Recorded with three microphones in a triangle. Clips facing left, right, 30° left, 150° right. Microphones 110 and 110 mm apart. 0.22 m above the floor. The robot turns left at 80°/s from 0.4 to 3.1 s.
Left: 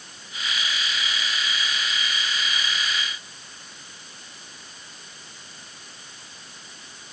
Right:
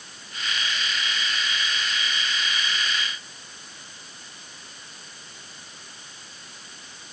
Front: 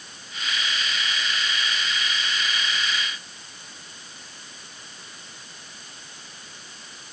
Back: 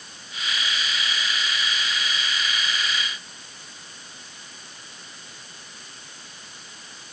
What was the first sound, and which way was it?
Only background noise.